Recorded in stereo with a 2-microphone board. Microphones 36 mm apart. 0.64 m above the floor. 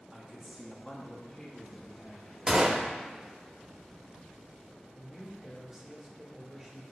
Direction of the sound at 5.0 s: 10° right (ahead or behind).